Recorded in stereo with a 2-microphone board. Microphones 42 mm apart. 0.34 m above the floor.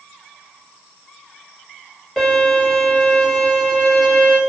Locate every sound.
2.2 s a violin: 10° left (ahead or behind), 1.5 m